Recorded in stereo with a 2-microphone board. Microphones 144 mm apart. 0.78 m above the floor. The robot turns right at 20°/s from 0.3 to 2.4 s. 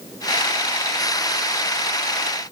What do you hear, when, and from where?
Only background noise.